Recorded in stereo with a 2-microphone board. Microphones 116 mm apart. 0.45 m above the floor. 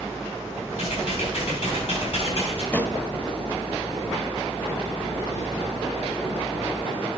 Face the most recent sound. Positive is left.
turn(degrees=15)  # may be behind; listen again after turning